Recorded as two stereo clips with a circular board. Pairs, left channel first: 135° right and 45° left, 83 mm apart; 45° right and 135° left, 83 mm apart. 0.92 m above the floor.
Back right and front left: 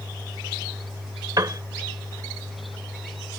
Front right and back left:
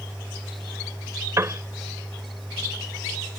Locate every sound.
1.4 s a piano: 85° left